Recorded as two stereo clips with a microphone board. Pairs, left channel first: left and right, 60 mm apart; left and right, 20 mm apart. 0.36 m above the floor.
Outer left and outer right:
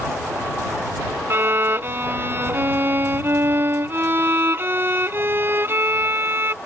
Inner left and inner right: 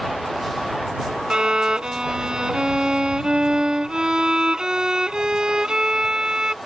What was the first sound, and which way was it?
A violin, 40° right (ahead or behind).